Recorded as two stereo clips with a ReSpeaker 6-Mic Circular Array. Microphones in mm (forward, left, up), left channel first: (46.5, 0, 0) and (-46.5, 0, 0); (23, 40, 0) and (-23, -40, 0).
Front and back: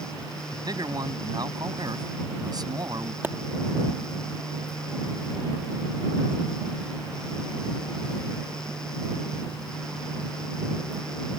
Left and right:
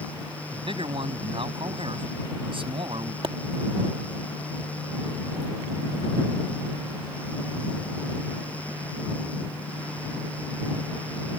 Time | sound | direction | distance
0.5 | a man speaking | 135° right | ?
3.2 | a pop | 115° right | ?